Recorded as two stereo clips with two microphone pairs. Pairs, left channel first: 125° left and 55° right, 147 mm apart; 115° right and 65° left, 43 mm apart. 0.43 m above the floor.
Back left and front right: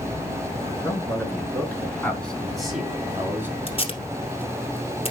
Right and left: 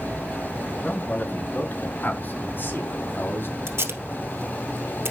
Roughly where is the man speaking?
Behind.